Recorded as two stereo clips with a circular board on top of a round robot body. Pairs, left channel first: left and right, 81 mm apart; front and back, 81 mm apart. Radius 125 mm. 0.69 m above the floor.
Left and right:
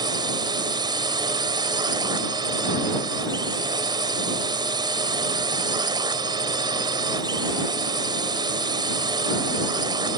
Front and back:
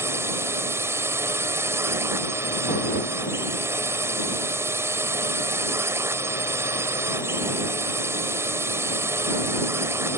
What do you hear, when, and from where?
0.0 s a drone: 120° right